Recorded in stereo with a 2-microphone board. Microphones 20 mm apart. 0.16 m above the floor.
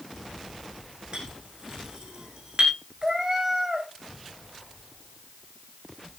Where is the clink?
40° right (ahead or behind), 7.5 m.